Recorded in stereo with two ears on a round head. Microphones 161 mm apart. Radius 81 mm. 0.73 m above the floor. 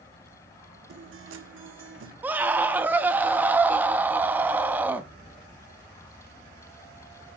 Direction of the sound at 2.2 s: 10° right (ahead or behind).